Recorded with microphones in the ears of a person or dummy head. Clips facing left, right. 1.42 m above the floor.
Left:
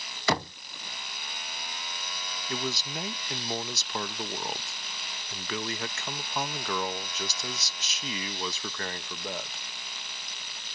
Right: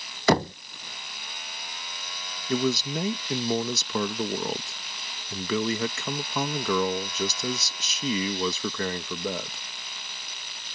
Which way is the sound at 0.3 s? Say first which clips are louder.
Right 7 dB; 40° right (ahead or behind).